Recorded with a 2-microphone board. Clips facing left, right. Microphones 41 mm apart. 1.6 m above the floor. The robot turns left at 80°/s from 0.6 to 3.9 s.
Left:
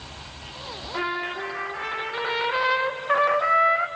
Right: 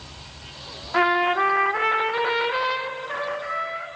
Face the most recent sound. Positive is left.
turn(degrees=75)